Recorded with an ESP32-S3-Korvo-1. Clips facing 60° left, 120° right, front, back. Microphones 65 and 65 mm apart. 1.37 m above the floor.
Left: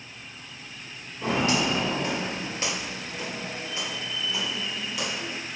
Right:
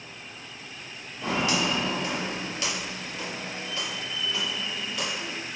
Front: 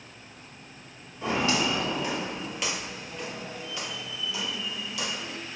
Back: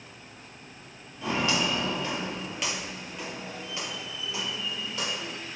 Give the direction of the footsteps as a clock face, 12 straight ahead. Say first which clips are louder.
Left 2 dB, front 1 dB; 10 o'clock.